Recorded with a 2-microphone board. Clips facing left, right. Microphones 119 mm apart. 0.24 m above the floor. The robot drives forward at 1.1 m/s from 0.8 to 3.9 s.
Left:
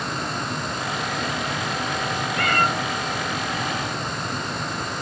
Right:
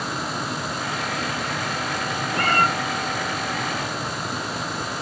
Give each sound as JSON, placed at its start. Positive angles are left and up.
{"t": 2.3, "sound": "a cat meowing", "side_deg": -40, "distance_m": 0.9}